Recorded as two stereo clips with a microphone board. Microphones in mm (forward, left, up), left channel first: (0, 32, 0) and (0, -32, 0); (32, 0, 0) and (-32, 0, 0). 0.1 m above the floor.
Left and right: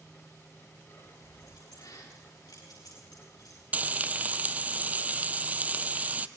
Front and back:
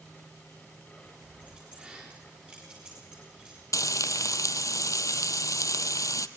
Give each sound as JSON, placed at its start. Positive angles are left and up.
{"t": 1.0, "sound": "keys jangling", "azimuth_deg": 115, "distance_m": 9.0}
{"t": 3.7, "sound": "frying", "azimuth_deg": -25, "distance_m": 0.7}